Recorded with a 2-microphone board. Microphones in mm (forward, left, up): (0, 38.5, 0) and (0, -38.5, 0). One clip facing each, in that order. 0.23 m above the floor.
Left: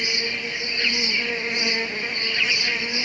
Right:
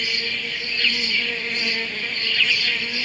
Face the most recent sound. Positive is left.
turn(degrees=15)  # may be behind; listen again after turning